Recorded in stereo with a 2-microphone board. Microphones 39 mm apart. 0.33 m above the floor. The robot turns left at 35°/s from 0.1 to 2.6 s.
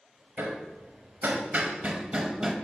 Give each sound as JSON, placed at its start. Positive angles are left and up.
{"t": 0.4, "sound": "hammering", "side_deg": -55, "distance_m": 0.7}